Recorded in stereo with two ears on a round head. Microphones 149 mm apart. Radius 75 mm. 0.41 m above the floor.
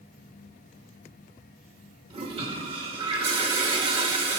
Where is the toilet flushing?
35° right (ahead or behind), 1.4 m.